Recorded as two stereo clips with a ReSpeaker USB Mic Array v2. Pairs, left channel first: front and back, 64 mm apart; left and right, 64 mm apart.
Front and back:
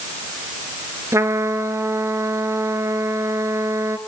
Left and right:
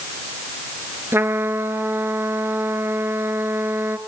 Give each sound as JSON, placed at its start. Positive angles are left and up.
{"t": 1.1, "sound": "a trumpet", "azimuth_deg": -140, "distance_m": 1.3}